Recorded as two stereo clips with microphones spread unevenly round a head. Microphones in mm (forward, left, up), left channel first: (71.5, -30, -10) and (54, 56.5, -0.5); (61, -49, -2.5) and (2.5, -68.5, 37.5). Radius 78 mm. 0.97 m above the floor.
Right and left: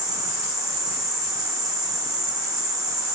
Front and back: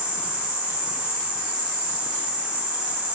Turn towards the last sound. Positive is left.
turn(degrees=85)